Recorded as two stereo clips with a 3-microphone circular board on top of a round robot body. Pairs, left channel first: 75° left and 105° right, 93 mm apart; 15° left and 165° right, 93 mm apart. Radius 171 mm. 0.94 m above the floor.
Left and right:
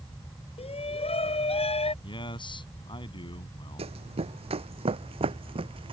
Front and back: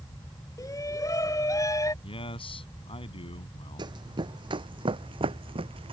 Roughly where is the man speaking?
Ahead left.